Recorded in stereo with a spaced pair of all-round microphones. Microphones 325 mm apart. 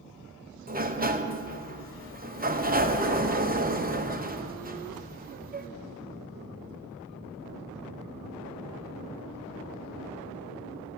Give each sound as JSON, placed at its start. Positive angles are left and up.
{"t": 0.7, "sound": "a sliding door", "side_deg": -25, "distance_m": 0.9}